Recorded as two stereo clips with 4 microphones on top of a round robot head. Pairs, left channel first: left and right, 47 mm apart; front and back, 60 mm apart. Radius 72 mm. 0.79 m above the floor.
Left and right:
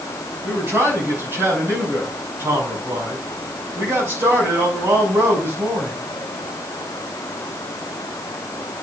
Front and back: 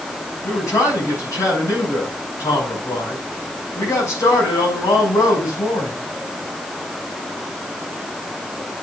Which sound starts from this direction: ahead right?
A man speaking, at 0.4 s.